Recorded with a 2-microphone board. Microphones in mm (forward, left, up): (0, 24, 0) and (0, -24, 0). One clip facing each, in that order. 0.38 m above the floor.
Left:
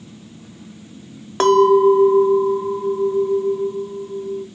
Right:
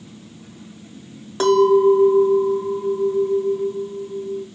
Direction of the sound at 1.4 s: 50° left (ahead or behind).